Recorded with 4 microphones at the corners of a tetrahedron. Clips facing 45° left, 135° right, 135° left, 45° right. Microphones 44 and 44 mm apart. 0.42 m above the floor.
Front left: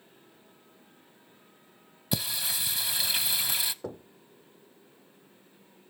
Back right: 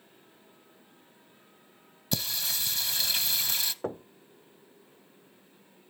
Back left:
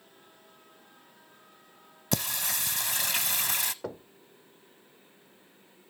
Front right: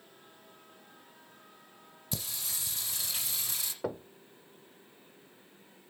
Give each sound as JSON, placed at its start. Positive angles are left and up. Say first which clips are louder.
{"t": 2.1, "sound": "singing", "louder": "front left 1 dB, back left 9 dB", "azimuth_deg": 125, "distance_m": 0.6}
{"t": 3.8, "sound": "knocking", "louder": "back right 4 dB, front right 3 dB", "azimuth_deg": -120, "distance_m": 0.5}